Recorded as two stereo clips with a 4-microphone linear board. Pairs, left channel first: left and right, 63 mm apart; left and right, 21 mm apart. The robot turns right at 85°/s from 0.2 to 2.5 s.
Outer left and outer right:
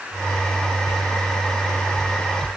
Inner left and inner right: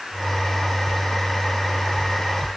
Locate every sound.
Only background noise.